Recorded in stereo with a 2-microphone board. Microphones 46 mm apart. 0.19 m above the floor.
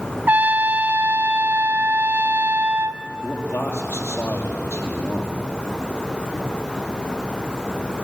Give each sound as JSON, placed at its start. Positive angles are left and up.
{"t": 0.3, "sound": "a trumpet", "side_deg": -40, "distance_m": 0.6}
{"t": 3.2, "sound": "a man speaking", "side_deg": 65, "distance_m": 5.0}